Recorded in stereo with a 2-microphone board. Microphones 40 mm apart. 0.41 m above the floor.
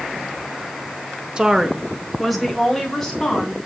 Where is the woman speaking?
20° right (ahead or behind), 0.8 m; by 3.5 s 10° left (ahead or behind), 3 m.